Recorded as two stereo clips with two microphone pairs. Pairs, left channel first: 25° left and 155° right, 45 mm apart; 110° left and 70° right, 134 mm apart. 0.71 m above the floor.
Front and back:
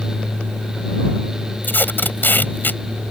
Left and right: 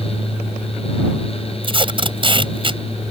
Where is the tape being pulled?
20° right.